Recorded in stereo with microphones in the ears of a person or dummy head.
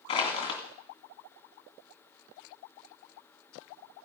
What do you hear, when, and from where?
0.1 s crushing: 20° left (ahead or behind), 2 m